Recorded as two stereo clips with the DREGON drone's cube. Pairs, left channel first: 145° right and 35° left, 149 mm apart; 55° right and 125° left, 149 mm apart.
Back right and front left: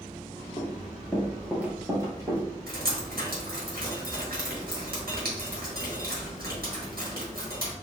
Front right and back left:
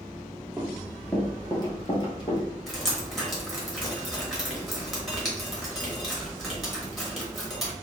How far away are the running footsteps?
About 1.2 m.